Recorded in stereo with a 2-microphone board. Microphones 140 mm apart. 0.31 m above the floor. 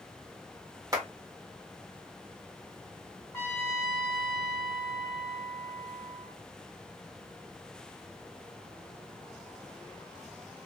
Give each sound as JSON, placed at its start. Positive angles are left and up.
{"t": 0.9, "sound": "a clap", "side_deg": -25, "distance_m": 1.4}
{"t": 3.3, "sound": "a trumpet", "side_deg": 20, "distance_m": 0.8}